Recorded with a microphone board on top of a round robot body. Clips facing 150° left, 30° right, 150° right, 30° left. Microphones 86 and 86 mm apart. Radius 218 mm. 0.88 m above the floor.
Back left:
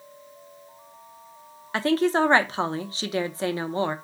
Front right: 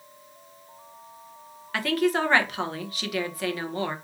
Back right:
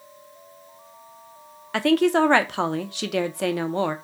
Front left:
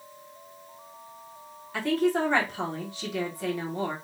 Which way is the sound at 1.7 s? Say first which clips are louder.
Back left 3 dB, back right 6 dB; 150° right.